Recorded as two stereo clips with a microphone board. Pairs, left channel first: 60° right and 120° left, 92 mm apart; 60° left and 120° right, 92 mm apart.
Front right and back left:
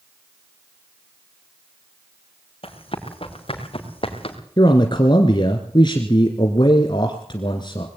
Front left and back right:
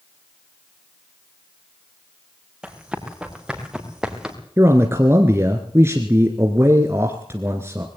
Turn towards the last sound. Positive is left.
turn(degrees=-65)